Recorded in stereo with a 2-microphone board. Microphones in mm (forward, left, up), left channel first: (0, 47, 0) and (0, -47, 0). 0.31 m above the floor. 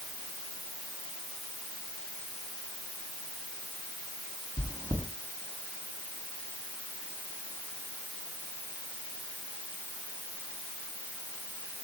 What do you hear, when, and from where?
4.6 s chewing: 40° right (ahead or behind), 2.5 m